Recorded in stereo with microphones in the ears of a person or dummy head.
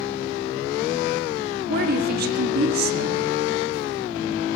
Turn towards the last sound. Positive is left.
turn(degrees=-60)  # may be behind; listen again after turning